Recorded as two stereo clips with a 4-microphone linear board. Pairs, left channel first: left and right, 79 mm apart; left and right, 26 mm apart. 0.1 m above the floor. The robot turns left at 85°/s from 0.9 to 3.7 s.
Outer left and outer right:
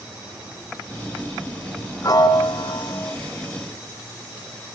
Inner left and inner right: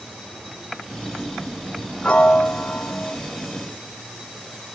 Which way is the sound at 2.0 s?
135° left.